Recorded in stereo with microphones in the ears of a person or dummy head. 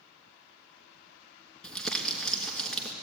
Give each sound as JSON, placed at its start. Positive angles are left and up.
{"t": 1.6, "sound": "crumpling", "side_deg": 0, "distance_m": 3.0}